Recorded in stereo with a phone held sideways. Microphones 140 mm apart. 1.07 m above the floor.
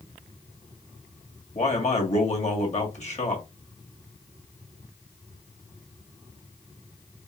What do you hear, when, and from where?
1.6 s a man speaking: 55° left (ahead or behind), 1.6 m